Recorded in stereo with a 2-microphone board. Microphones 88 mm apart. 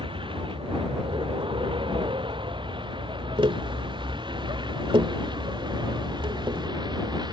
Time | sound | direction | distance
0.0 | a vehicle | 80° right | ?
3.4 | tapping | 85° right | ?